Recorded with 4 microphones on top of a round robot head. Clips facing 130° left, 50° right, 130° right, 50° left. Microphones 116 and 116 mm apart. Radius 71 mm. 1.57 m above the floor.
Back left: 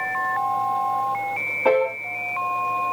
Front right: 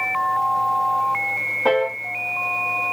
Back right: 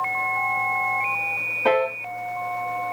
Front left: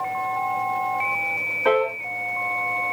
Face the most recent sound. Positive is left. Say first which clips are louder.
# even, even
turn(degrees=-140)